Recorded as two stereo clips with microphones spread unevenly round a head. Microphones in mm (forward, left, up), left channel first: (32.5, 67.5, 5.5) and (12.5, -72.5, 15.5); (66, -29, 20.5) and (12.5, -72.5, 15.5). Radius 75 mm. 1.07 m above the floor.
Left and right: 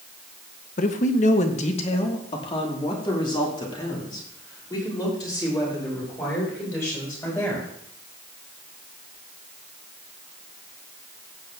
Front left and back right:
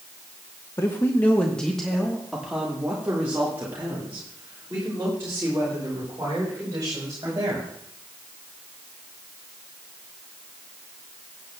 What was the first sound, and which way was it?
A man speaking, 90° left.